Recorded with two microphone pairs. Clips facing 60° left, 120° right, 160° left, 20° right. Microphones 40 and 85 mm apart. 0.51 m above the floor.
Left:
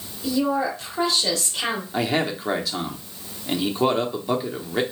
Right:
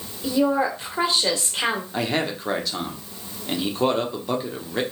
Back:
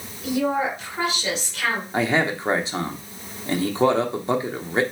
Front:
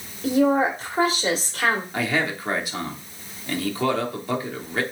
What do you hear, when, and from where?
0.2 s a woman speaking: 65° right, 1.4 m
1.9 s a man speaking: 135° left, 0.7 m